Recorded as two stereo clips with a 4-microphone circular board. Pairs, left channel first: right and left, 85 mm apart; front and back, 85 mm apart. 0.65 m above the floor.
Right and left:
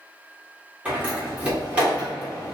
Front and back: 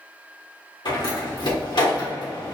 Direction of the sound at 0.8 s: 15° left.